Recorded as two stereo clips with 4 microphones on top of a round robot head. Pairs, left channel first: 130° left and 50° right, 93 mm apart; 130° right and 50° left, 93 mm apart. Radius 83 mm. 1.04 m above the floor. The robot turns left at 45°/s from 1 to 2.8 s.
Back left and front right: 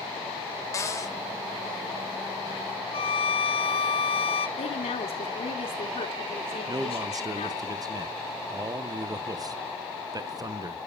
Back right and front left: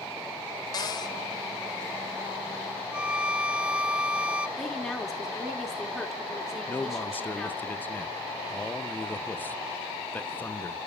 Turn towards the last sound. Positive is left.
turn(degrees=-70)